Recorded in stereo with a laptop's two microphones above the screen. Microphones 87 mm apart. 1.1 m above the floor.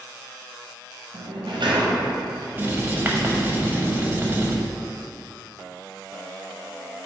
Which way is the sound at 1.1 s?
75° right (ahead or behind).